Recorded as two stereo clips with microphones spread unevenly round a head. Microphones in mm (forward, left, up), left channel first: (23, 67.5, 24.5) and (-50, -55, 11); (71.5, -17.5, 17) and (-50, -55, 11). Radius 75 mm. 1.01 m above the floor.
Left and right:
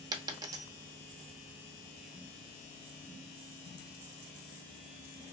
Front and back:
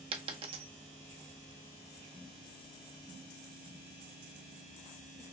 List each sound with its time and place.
0.1 s a dropped coin: 175° right, 0.7 m